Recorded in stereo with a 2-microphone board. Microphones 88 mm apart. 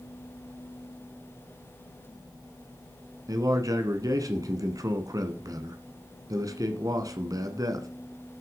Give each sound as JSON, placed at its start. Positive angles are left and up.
{"t": 3.3, "sound": "a man speaking", "side_deg": -40, "distance_m": 1.6}